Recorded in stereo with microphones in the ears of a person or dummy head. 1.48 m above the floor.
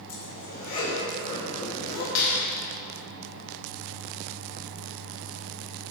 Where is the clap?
85° left, 2 m.